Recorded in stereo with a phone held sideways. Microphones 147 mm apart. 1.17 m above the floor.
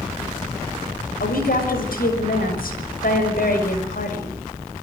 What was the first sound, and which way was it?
A woman speaking, 85° left.